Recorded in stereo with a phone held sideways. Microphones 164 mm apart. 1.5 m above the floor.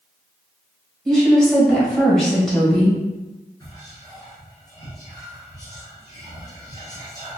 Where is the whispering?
20° left (ahead or behind), 0.9 m.